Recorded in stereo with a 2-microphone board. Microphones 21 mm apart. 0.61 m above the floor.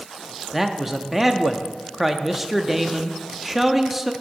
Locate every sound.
0.5 s a man speaking: 5° right (ahead or behind), 0.5 m